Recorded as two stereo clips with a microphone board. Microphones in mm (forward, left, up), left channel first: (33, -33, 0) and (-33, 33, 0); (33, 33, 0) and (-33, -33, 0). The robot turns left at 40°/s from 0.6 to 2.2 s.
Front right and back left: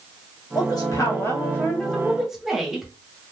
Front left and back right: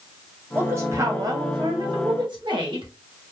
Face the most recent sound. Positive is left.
turn(degrees=-140)